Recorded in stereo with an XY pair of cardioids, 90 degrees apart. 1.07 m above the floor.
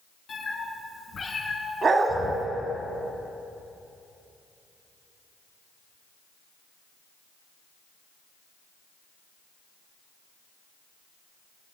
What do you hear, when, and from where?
0.3 s a cat meowing: 55° left, 4 m; by 2.5 s 35° left, 4 m
1.8 s a dog barking: 50° right, 2.5 m